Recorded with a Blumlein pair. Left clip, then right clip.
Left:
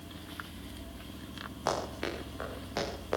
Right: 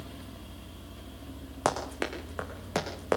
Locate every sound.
1.6 s running footsteps: 50° right, 6.5 m